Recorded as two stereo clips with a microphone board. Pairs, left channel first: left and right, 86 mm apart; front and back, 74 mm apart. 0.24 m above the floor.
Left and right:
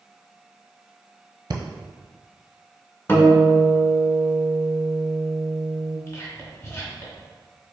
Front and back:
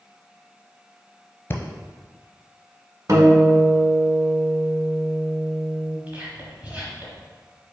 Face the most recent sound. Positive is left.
turn(degrees=120)